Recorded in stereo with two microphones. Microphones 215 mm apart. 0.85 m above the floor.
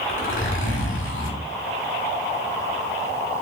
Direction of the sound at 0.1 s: 70° left (ahead or behind).